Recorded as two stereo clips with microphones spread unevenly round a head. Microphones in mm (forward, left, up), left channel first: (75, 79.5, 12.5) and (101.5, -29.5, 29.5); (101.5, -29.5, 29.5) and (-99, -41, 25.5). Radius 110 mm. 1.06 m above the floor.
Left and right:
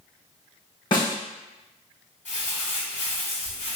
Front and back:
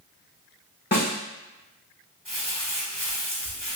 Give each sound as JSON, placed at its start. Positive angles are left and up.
{"t": 0.9, "sound": "a snare drum", "azimuth_deg": 55, "distance_m": 1.5}
{"t": 2.2, "sound": "crumpling", "azimuth_deg": 85, "distance_m": 1.9}